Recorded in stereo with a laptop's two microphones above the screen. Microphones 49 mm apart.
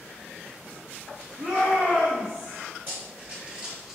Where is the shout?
80° right, 1.1 m.